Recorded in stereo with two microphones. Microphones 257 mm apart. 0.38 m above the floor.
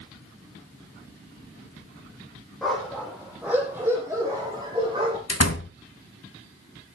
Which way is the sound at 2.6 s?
Centre (ahead or behind).